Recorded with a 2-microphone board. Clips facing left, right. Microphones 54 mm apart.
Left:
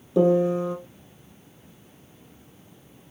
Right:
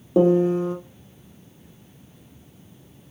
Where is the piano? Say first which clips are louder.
Right 2 dB; 35° right (ahead or behind), 2 m.